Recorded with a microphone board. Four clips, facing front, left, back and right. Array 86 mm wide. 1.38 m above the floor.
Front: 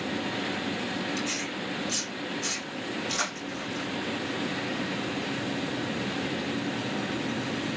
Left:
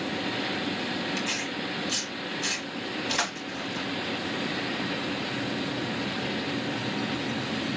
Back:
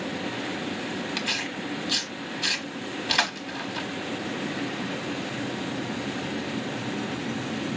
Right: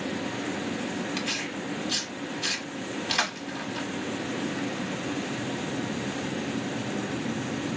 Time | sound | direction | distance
1.2 | tearing paper | 160° right | 0.9 m